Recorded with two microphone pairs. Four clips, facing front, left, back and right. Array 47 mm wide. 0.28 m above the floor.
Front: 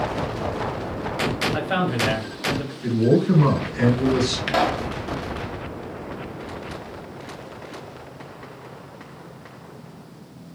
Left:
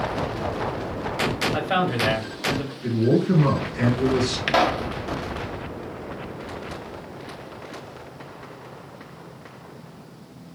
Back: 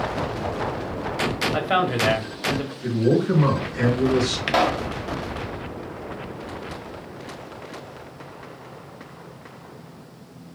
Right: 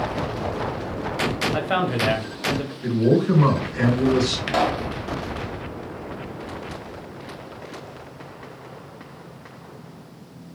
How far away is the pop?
About 0.8 m.